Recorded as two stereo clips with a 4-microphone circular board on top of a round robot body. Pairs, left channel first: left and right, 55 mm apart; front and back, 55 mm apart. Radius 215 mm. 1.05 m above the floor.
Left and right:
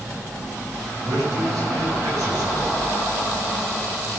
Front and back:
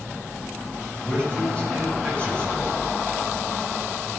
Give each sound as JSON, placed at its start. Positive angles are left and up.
{"t": 1.1, "sound": "a man speaking", "azimuth_deg": -65, "distance_m": 7.0}